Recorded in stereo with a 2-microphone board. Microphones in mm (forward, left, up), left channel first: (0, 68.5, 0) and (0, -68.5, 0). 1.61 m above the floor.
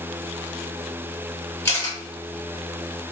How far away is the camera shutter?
About 1.3 m.